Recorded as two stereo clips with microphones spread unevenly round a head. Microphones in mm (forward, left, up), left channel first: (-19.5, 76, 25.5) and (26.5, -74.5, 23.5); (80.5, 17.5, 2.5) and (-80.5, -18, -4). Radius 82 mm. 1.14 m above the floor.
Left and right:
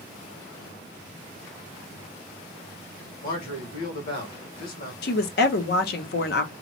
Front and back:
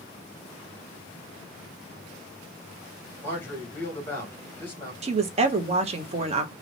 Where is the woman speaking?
135° left, 0.6 m.